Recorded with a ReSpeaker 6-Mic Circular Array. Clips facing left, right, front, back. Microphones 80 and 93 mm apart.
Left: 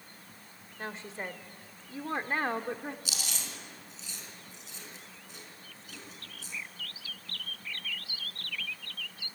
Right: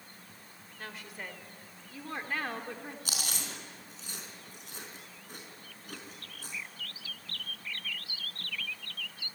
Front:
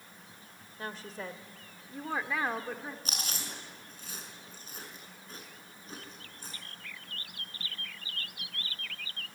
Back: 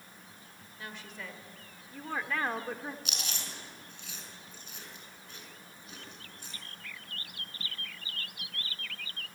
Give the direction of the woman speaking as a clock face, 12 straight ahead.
11 o'clock.